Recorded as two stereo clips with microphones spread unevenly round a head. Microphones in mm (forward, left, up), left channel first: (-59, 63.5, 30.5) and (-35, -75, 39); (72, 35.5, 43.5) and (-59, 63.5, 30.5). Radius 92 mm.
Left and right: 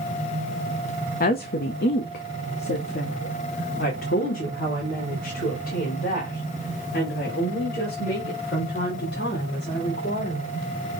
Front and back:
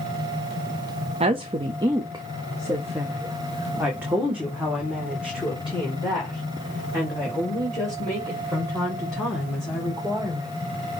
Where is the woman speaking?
120° left, 0.8 m; by 10.5 s 80° left, 5.5 m.